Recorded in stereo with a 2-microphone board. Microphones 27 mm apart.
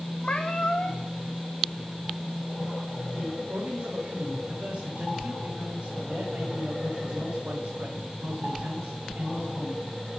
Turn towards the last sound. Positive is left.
turn(degrees=-80)